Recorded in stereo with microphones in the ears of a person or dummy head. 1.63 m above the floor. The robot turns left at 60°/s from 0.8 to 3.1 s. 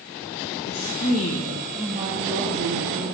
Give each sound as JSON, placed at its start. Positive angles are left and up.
{"t": 0.7, "sound": "a woman speaking", "azimuth_deg": 65, "distance_m": 0.7}